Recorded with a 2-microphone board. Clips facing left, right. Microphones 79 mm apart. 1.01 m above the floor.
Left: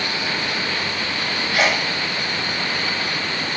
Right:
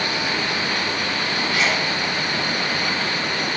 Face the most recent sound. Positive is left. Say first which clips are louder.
# left 4 dB
turn(degrees=60)  # may be behind; listen again after turning